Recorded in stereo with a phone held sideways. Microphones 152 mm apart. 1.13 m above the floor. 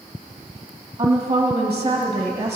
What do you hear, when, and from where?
1.0 s a woman speaking: 30° right (ahead or behind), 1.4 m